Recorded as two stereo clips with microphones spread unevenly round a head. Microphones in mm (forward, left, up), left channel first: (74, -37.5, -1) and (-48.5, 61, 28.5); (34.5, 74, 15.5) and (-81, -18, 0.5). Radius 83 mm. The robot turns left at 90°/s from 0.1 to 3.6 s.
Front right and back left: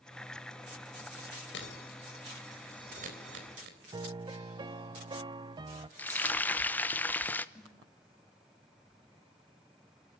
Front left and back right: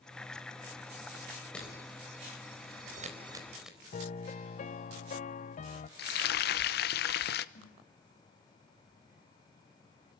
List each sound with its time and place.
1.5 s breaking glass: 45° right, 4 m; by 3.8 s 130° left, 4 m
3.9 s a piano: 75° left, 0.7 m
6.0 s frying: 35° left, 0.8 m
7.5 s a snare drum: 50° left, 4 m